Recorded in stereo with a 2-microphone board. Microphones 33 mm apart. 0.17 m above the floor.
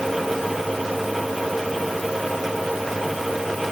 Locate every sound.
Only background noise.